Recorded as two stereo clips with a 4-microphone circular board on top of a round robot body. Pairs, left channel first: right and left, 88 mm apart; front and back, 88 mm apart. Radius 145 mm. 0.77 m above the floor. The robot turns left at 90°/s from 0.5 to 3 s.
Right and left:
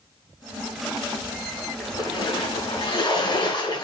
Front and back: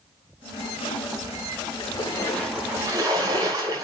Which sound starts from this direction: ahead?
A splash, at 1.8 s.